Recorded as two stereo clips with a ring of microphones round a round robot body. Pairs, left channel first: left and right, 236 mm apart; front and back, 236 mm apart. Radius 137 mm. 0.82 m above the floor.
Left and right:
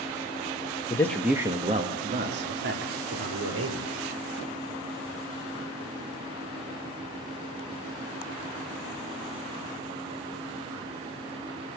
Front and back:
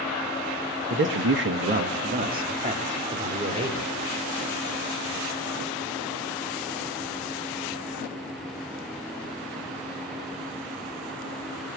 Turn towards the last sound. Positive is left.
turn(degrees=-115)